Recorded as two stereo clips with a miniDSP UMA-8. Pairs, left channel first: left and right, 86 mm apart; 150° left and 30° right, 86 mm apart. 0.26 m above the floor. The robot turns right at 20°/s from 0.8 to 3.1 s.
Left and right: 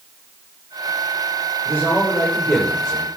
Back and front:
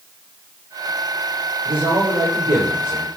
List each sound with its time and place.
1.6 s a man speaking: 25° right, 7 m; by 3.1 s 5° left, 7 m